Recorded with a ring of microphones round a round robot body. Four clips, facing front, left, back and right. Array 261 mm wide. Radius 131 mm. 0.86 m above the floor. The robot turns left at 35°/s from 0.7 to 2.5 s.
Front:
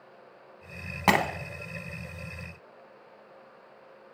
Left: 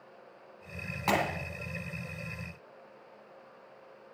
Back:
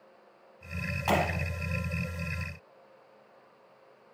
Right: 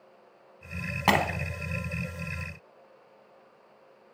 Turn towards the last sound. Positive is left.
turn(degrees=-85)